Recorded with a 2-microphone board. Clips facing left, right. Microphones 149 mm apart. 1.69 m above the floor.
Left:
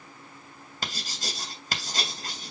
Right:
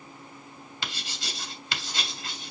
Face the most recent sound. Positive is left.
turn(degrees=45)  # may be behind; listen again after turning